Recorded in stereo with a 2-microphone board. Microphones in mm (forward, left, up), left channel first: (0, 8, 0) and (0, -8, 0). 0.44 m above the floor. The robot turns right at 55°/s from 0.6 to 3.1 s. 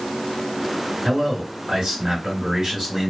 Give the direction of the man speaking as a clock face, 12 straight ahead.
4 o'clock.